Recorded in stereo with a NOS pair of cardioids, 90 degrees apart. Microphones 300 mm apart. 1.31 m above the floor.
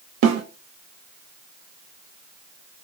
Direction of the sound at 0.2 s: 65° right.